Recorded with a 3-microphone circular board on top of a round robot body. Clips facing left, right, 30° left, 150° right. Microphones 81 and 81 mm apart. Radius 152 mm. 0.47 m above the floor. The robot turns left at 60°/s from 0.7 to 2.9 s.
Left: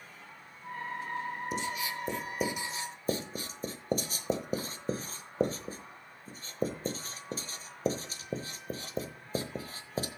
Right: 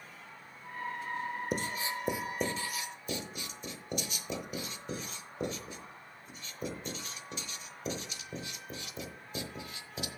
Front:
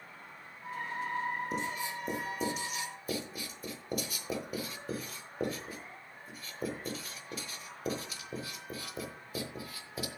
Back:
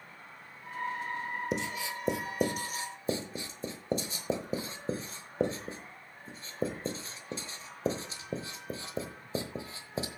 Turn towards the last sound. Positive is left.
turn(degrees=145)